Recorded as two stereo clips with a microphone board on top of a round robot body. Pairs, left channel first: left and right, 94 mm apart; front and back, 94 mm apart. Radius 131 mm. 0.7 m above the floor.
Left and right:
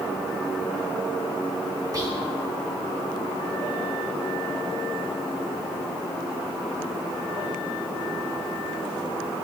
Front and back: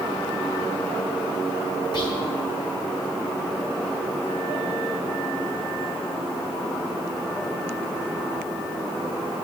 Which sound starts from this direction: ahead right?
Whispering, at 1.9 s.